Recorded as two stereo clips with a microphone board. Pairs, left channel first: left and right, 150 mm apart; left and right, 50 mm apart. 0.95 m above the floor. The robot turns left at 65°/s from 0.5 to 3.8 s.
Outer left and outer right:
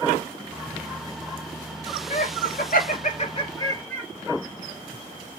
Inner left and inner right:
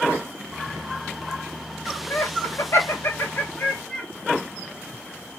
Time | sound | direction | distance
2.1 | laughter | 50° left (ahead or behind) | 2 m